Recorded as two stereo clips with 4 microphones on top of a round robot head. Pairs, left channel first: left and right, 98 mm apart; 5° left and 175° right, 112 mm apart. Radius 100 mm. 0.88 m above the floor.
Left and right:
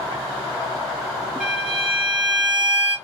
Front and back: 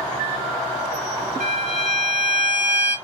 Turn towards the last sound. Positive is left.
turn(degrees=-175)